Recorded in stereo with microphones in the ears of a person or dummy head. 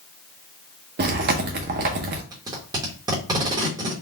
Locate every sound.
1.0 s chewing: 50° right (ahead or behind), 0.8 m
2.3 s tape being pulled: 20° right (ahead or behind), 1.2 m